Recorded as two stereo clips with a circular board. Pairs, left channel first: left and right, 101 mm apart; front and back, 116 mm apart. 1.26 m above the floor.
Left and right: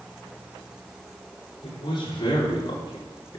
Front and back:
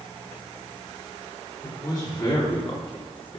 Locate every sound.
1.6 s a man speaking: 60° left, 4 m; by 3.4 s 40° left, 3.5 m